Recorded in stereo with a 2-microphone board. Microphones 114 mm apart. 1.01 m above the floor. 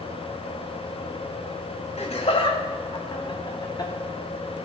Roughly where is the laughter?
Left.